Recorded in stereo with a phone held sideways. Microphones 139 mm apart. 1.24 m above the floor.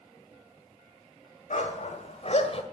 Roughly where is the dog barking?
Left.